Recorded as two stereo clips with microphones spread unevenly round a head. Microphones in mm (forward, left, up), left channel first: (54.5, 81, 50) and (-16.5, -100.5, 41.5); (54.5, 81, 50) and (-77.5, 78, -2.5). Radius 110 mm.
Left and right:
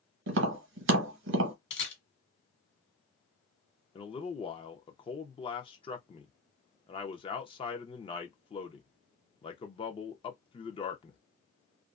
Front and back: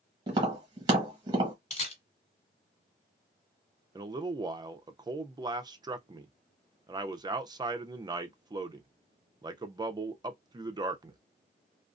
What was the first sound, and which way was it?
Tapping, 125° right.